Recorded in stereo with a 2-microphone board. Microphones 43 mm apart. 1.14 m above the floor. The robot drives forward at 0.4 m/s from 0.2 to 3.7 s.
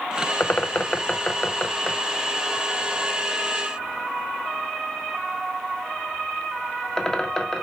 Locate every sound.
0.4 s a bird: 45° left (ahead or behind), 0.5 m; by 7.6 s 15° left (ahead or behind), 1.6 m